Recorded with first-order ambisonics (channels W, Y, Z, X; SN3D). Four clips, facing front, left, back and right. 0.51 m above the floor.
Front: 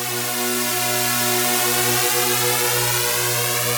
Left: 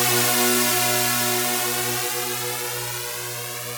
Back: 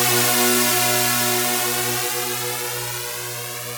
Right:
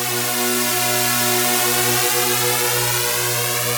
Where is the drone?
160° left; by 3.8 s 45° right.